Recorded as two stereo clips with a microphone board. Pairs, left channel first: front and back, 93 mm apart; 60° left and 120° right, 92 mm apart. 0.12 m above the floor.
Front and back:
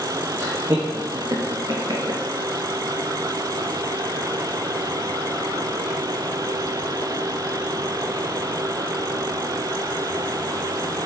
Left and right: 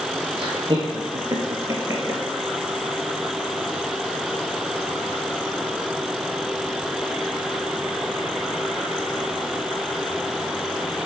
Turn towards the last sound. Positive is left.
turn(degrees=-175)